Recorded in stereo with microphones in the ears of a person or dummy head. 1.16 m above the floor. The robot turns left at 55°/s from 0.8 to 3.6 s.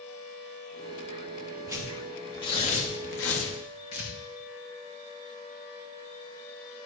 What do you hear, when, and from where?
1.7 s tearing paper: 20° right (ahead or behind), 1.4 m; by 3.5 s 80° left, 1.4 m
3.9 s tearing paper: 50° left (ahead or behind), 2 m